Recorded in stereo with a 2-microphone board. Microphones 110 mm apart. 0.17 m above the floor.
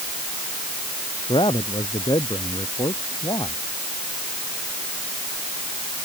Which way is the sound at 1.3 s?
50° left (ahead or behind).